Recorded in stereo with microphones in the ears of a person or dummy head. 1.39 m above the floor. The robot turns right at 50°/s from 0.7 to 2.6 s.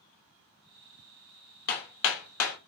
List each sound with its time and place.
1.7 s hammering: 50° left (ahead or behind), 0.8 m; by 2.6 s 85° left, 0.8 m